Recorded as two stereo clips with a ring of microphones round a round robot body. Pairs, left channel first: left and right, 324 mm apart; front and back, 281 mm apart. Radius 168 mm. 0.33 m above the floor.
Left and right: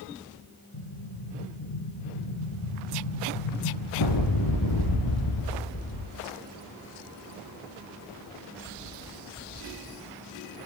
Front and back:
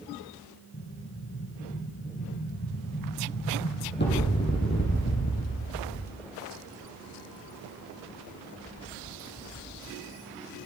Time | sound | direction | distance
0.7 | an explosion | 55° left | 4.5 m